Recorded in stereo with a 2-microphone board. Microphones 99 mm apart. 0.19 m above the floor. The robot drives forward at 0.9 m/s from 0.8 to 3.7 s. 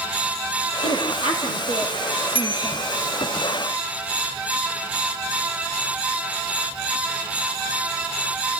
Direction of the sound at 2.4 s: 60° left (ahead or behind).